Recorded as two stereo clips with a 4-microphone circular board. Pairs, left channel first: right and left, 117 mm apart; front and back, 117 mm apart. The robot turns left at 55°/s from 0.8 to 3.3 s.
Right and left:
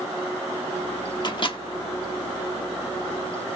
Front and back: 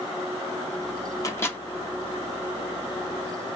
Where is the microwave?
55° right, 0.7 m; by 1.6 s 75° right, 0.7 m.